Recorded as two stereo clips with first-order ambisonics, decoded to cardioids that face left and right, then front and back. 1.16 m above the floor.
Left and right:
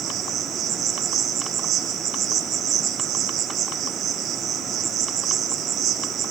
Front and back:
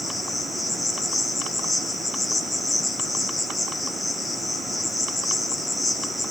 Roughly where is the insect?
Right.